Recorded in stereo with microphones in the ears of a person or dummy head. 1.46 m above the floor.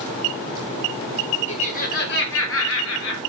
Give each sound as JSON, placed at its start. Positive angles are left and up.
{"t": 1.5, "sound": "laughter", "side_deg": 30, "distance_m": 0.8}